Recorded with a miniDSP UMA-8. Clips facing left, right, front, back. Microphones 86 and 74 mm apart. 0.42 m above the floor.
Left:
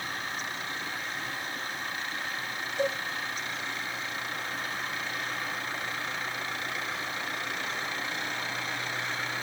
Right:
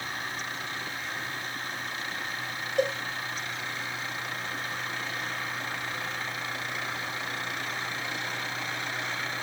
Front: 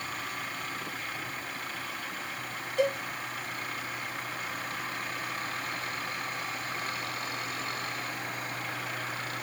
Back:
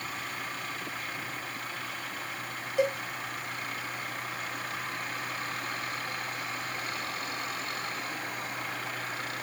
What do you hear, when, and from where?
2.8 s a cowbell: 95° right, 1.4 m